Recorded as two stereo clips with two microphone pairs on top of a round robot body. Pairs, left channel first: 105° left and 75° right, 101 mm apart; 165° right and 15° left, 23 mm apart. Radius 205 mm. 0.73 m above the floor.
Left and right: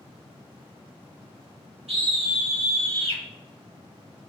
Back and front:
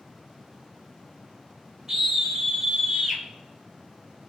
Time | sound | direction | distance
1.9 | a scream | 65° right | 4.5 m